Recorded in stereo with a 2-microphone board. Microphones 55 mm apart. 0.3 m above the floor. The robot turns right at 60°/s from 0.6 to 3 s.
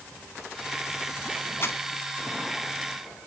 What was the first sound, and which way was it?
Crumpling, 50° left (ahead or behind).